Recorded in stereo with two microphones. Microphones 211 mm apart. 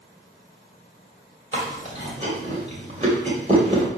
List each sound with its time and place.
1.5 s chewing: 35° right (ahead or behind), 2 m